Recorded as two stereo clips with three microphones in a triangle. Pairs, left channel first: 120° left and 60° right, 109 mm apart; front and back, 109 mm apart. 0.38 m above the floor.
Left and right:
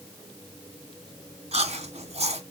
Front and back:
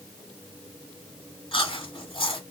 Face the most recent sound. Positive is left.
turn(degrees=-40)